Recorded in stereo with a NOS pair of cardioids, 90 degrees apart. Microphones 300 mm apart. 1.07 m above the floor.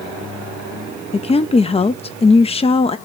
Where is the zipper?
I don't hear a zipper.